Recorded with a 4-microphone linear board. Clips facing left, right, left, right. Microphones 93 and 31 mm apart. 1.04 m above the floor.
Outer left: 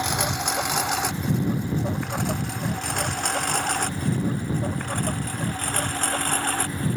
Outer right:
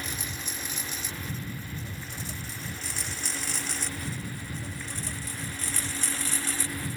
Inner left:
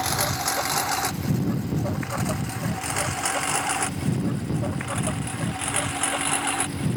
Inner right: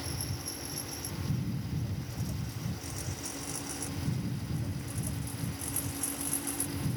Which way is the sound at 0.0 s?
70° left (ahead or behind).